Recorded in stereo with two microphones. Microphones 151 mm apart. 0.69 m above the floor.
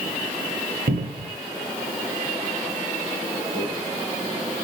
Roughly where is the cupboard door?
Right.